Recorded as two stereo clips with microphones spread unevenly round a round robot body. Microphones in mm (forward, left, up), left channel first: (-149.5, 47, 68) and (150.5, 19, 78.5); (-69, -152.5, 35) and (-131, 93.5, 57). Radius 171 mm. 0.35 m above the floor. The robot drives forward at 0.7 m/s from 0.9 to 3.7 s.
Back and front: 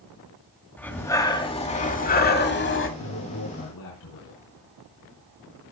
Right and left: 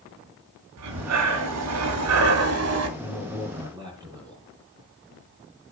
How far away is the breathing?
About 2 m.